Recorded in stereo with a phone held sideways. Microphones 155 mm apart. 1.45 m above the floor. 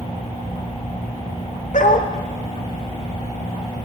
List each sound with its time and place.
1.7 s a dog barking: 60° left (ahead or behind), 1.9 m